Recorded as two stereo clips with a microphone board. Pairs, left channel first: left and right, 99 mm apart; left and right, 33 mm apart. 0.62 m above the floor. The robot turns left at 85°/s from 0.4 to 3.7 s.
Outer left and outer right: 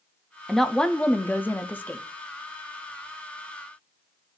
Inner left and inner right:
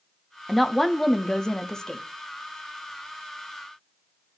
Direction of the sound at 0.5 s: Centre (ahead or behind).